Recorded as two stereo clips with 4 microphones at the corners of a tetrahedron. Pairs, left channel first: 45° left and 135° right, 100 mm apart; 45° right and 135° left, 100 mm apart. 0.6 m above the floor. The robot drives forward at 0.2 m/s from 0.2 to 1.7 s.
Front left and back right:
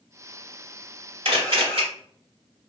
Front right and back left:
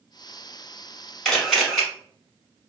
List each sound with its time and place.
1.2 s a camera shutter: 130° right, 0.9 m; by 1.8 s 135° right, 1.0 m